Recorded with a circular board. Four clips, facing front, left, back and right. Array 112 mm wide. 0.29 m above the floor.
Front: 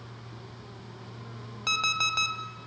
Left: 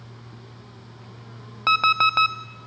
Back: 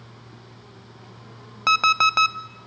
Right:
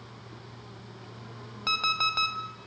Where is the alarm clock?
135° left, 1.0 m.